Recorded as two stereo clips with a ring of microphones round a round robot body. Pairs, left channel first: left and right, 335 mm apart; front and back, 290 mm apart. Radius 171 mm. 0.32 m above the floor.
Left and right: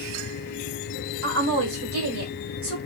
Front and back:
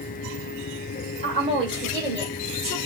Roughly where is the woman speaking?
Behind right.